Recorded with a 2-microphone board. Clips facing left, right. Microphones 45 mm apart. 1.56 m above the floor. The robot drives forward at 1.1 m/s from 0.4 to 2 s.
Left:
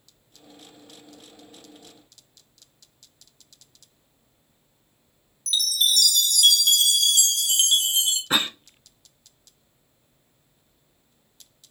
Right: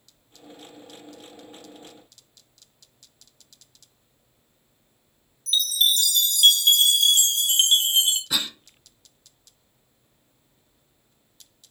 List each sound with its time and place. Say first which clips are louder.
5.5 s a chime: right 1 dB; 25° right (ahead or behind), 0.9 m
8.3 s a cough: left 4 dB; 40° left (ahead or behind), 0.5 m